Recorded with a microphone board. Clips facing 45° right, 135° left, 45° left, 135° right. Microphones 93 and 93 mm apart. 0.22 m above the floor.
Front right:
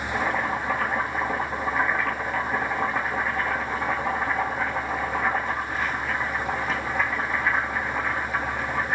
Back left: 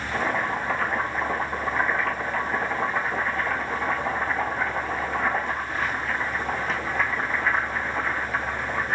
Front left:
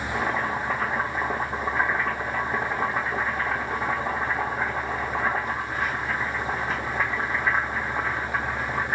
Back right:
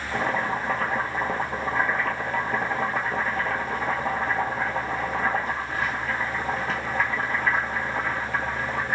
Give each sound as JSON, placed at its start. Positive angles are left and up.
{"t": 0.1, "sound": "boiling", "azimuth_deg": -130, "distance_m": 1.5}